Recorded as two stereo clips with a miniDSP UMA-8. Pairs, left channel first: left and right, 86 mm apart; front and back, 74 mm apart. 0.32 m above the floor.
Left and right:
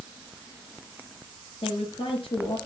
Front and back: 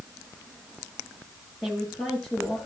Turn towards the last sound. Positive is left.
turn(degrees=80)